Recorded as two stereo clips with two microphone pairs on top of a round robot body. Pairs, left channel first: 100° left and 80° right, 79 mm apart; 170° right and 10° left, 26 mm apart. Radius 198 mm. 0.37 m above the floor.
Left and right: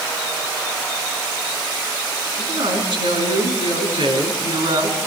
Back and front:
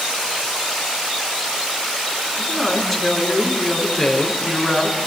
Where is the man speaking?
80° right, 6.5 m.